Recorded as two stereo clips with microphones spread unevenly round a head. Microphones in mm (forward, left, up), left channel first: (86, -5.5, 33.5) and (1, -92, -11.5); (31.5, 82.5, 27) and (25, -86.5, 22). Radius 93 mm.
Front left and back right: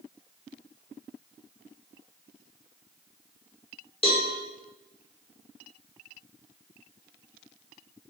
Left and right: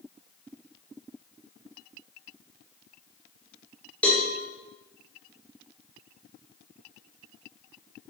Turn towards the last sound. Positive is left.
turn(degrees=5)